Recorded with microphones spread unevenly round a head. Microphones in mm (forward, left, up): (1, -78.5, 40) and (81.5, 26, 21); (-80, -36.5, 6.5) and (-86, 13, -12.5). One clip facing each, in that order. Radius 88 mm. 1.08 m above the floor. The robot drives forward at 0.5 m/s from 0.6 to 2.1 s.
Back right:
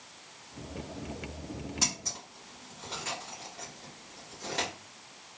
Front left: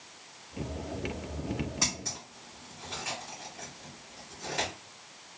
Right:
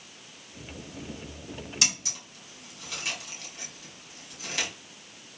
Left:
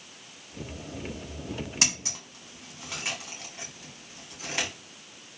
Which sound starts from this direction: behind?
Scissors, at 1.8 s.